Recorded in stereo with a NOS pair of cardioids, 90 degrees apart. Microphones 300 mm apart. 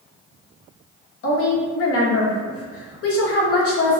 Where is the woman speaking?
50° left, 1.1 m.